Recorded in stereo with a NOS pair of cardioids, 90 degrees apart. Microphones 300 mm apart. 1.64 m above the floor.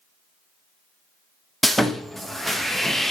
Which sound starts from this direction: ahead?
Sawing, at 1.6 s.